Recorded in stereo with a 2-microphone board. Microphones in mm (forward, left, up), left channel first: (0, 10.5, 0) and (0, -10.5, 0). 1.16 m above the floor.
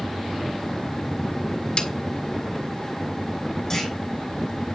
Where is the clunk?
20° left (ahead or behind), 6 m.